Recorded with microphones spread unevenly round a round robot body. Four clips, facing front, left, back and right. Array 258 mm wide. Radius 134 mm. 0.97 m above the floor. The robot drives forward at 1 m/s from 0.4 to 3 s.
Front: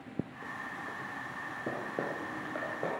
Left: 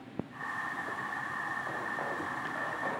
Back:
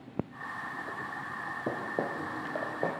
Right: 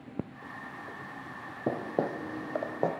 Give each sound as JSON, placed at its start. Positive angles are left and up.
{"t": 1.7, "sound": "footsteps", "azimuth_deg": -100, "distance_m": 2.5}